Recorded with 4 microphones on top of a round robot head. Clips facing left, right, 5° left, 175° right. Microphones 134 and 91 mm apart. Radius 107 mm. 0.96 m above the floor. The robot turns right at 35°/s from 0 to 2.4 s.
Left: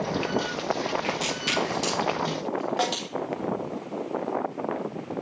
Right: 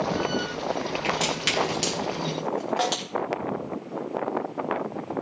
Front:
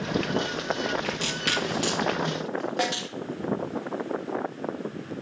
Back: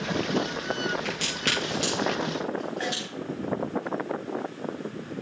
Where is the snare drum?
Straight ahead, 1.4 m.